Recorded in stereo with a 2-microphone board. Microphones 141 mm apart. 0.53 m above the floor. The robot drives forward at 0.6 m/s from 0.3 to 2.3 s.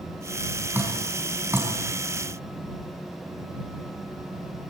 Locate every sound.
0.7 s dripping: 15° right (ahead or behind), 5.5 m